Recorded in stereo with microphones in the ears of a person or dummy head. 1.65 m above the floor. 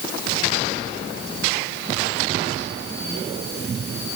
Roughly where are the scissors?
I don't hear scissors.